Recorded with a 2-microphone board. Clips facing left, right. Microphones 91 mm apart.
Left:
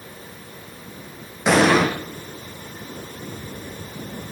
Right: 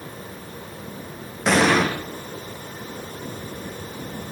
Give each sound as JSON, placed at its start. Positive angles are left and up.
{"t": 1.5, "sound": "an explosion", "side_deg": 5, "distance_m": 7.5}